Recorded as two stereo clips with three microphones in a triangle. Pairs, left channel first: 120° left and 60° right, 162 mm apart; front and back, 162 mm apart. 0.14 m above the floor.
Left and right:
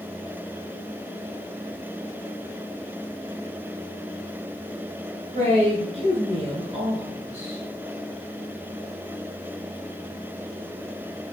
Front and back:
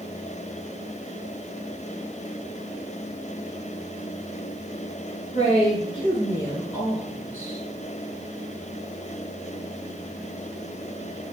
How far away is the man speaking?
About 1.8 m.